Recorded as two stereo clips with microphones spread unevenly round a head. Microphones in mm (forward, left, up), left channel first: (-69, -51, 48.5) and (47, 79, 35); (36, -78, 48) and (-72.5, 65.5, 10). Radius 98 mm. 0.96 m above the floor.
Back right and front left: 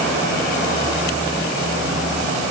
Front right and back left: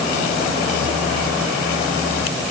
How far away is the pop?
No pop in this recording.